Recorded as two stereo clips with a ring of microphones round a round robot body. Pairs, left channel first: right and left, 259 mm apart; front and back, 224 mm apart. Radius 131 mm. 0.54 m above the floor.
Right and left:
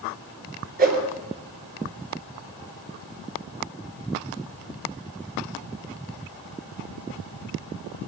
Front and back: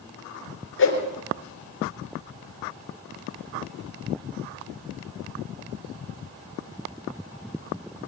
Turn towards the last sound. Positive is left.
turn(degrees=30)